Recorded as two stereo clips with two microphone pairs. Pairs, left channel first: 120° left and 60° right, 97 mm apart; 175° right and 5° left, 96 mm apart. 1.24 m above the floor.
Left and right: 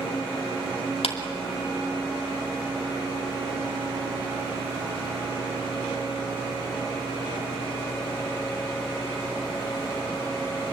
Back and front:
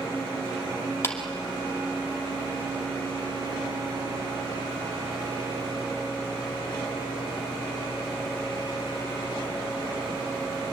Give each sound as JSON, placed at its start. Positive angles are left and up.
{"t": 1.0, "sound": "a clap", "azimuth_deg": 125, "distance_m": 2.5}